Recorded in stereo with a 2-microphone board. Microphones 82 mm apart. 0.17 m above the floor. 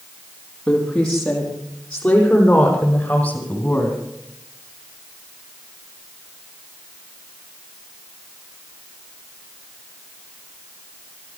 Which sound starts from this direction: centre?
A woman speaking, at 0.7 s.